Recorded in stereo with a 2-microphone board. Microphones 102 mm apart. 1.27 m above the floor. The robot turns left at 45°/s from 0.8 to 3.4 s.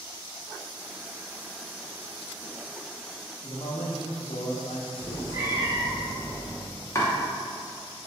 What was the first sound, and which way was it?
A man speaking, 80° left.